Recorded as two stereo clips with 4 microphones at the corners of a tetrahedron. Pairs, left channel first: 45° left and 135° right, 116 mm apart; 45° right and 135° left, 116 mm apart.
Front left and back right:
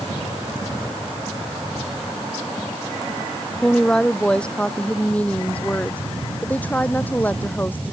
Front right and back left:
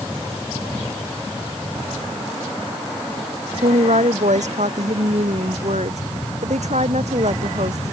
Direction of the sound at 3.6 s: 130° left.